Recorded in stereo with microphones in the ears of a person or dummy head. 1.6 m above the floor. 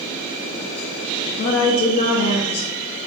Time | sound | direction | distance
1.3 | a woman speaking | 45° left (ahead or behind) | 0.6 m